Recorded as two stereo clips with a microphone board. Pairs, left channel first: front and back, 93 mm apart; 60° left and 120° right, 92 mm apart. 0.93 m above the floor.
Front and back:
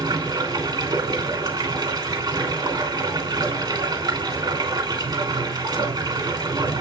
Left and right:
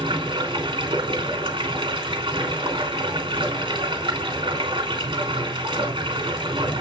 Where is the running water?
145° right, 3 m.